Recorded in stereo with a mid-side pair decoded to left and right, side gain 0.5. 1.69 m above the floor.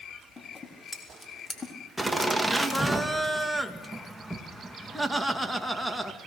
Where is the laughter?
5° right, 2 m.